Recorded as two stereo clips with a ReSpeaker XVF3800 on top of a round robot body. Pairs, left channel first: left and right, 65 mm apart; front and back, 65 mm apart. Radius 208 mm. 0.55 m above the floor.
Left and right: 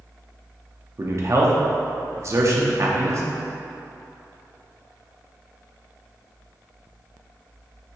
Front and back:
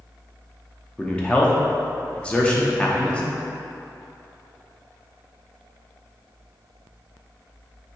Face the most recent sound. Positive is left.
turn(degrees=-70)